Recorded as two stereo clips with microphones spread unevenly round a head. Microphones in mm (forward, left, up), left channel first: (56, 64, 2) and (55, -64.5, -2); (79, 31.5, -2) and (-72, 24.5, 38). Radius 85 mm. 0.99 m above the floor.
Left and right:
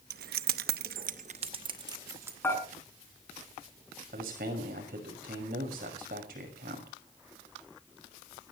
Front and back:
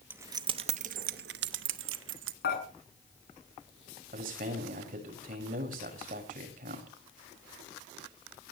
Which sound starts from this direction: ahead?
Dishes clattering, at 2.4 s.